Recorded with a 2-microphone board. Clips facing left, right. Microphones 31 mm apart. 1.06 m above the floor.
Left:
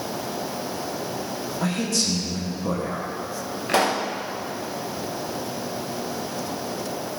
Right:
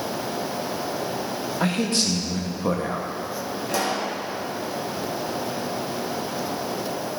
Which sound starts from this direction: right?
A man speaking, at 1.6 s.